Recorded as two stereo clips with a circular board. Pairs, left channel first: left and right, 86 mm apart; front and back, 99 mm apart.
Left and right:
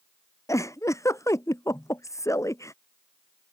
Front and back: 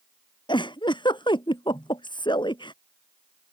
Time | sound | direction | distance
0.5 | a giggle | 40° left | ?